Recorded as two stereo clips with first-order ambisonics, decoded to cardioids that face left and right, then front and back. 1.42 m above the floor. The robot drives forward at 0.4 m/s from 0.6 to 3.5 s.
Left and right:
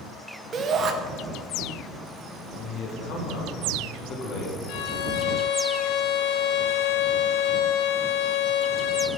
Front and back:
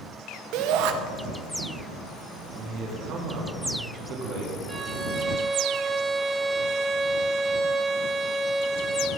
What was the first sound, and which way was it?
A shout, 155° right.